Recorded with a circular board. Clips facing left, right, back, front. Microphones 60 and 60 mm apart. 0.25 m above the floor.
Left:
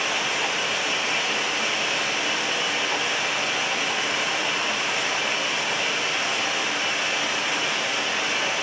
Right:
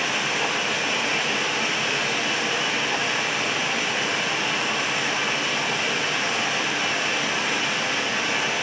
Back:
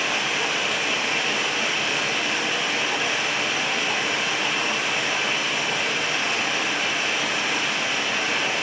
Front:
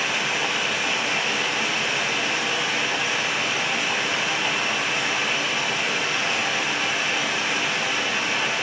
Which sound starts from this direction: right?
Running water, at 0.0 s.